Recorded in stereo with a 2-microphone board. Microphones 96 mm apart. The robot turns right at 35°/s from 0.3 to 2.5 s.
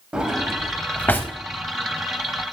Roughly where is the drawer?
Centre.